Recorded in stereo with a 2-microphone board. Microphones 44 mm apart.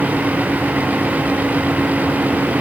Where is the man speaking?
I don't hear a man speaking.